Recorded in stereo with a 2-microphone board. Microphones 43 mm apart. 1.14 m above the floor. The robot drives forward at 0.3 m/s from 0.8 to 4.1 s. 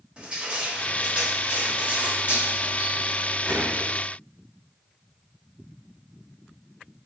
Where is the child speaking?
I don't hear a child speaking.